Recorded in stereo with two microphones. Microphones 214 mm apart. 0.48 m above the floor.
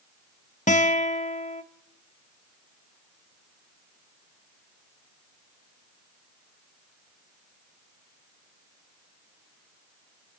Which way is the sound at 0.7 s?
35° left (ahead or behind).